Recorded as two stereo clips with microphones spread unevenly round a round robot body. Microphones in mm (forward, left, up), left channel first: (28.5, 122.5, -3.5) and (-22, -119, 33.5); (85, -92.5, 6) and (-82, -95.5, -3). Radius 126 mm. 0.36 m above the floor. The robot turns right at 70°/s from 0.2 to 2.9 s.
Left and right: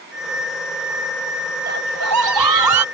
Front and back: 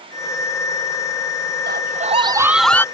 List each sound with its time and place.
1.7 s a scream: 160° right; by 2.9 s 75° right